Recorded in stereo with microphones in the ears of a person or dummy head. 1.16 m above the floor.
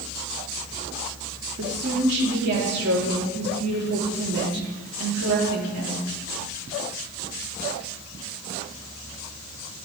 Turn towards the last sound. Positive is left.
turn(degrees=-60)  # may be behind; listen again after turning